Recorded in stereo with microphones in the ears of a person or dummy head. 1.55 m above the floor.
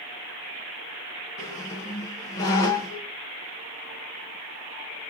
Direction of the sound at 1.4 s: 15° left (ahead or behind).